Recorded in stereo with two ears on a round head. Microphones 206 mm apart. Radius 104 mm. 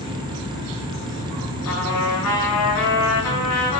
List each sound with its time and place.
1.6 s a trumpet: 85° left, 7.5 m